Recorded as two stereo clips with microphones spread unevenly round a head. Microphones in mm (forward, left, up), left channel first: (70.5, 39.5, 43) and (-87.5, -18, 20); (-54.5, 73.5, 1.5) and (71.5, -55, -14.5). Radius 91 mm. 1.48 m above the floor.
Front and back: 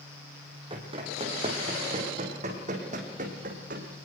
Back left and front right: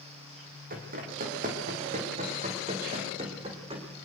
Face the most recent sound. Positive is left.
turn(degrees=-110)